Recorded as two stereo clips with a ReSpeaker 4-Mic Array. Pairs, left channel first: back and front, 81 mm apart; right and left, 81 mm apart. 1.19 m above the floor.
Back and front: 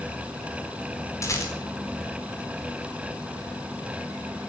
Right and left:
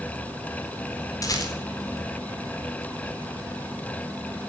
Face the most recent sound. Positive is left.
turn(degrees=-130)